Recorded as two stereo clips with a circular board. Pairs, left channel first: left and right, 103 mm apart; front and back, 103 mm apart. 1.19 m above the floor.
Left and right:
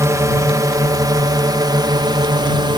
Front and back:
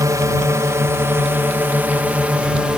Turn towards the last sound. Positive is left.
turn(degrees=-100)